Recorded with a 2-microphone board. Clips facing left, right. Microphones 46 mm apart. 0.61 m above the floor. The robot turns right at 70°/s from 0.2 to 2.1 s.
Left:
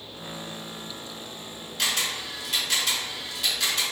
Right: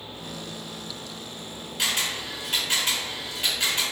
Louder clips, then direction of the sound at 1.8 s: Even; 10° right (ahead or behind).